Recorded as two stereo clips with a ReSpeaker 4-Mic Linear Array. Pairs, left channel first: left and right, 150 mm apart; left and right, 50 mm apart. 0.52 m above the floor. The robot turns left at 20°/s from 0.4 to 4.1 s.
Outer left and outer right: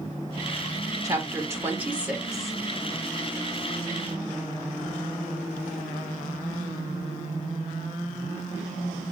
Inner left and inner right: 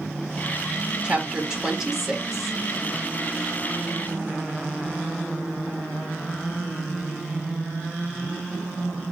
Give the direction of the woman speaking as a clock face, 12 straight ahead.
5 o'clock.